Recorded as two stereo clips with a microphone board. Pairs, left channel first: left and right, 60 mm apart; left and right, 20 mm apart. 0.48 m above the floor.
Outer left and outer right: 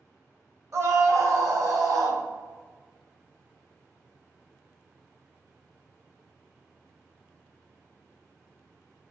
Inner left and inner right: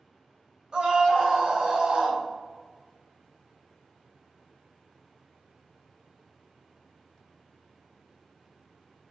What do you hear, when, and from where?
0.7 s a scream: 55° right (ahead or behind), 3 m; by 2.2 s 70° right (ahead or behind), 4 m